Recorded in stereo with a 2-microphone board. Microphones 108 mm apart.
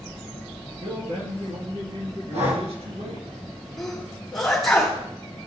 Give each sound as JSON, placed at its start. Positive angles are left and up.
{"t": 0.8, "sound": "a man speaking", "side_deg": -70, "distance_m": 3.5}
{"t": 2.3, "sound": "breathing", "side_deg": -80, "distance_m": 2.0}
{"t": 3.8, "sound": "a sneeze", "side_deg": 5, "distance_m": 3.5}